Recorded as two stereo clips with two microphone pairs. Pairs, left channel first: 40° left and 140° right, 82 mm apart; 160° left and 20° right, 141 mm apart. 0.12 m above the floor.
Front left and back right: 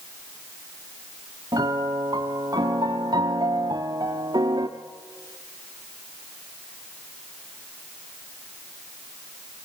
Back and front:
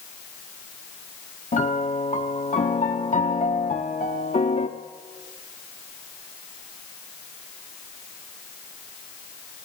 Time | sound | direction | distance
1.5 | a piano | 175° right | 1.7 m